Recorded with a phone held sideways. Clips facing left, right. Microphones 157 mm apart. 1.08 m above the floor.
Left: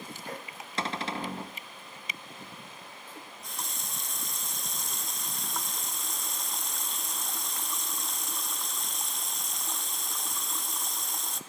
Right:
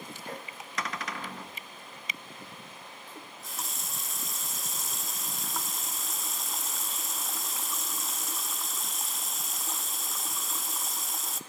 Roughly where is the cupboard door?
Left.